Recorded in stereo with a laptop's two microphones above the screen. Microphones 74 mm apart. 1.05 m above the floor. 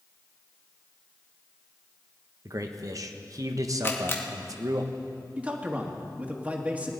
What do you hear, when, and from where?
2.5 s a man speaking: 50° right (ahead or behind), 1.0 m
3.8 s a camera shutter: 35° left (ahead or behind), 0.9 m
5.4 s a man speaking: 20° right (ahead or behind), 1.7 m